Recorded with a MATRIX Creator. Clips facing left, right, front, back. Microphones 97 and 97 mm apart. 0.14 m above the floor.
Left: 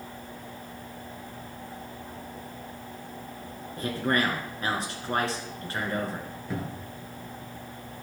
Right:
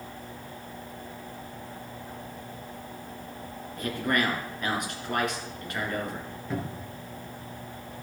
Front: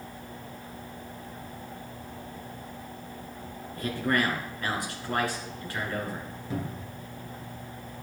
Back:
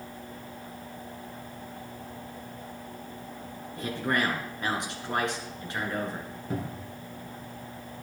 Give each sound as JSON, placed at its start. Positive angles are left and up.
{"t": 3.8, "sound": "a man speaking", "azimuth_deg": 125, "distance_m": 2.0}
{"t": 6.5, "sound": "a cupboard door", "azimuth_deg": 180, "distance_m": 1.7}